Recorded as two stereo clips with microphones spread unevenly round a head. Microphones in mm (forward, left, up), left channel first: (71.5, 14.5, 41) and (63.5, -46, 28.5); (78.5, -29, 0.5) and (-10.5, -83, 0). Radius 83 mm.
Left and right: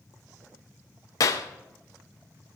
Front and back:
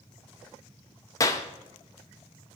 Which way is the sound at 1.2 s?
95° left.